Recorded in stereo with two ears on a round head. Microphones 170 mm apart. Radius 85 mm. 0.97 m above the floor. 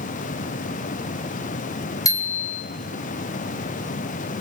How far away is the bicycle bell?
About 3.5 m.